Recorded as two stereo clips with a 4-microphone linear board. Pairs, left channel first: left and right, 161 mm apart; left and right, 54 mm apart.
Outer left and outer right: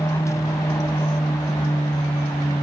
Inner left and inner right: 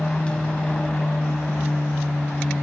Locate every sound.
0.0 s an aircraft: 20° left (ahead or behind)